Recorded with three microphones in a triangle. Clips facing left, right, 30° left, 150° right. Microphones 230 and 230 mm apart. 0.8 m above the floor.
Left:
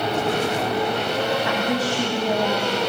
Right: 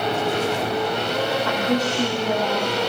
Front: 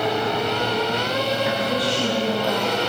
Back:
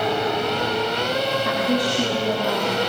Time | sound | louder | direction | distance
1.4 | a woman speaking | right 1 dB, back 1 dB | 165° left | 5.5 m